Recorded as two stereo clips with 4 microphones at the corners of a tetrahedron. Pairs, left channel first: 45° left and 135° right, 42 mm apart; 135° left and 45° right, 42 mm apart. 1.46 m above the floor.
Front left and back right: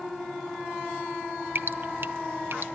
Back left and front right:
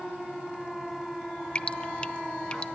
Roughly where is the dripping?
Behind.